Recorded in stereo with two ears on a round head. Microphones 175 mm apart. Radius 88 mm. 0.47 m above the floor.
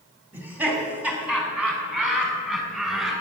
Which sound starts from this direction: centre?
Laughter, at 0.3 s.